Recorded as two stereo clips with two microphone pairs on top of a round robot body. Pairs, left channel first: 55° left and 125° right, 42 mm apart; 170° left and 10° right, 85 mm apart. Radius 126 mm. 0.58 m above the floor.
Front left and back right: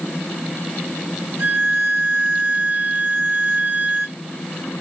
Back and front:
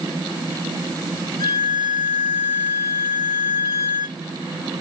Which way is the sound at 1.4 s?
145° right.